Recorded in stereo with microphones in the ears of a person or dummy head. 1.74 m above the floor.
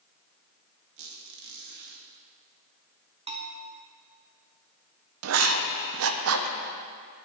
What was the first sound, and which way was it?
A squeak, 65° right (ahead or behind).